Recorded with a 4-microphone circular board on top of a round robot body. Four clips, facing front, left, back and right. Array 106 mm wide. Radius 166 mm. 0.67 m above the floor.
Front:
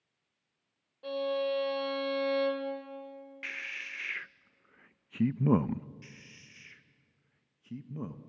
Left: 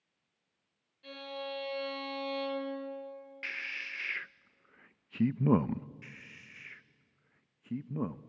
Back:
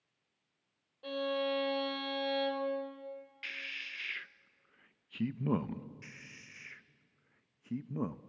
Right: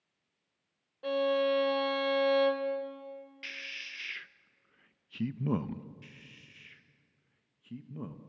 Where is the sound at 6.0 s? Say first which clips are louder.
Left 3 dB, back 1 dB; 125° left, 0.7 m.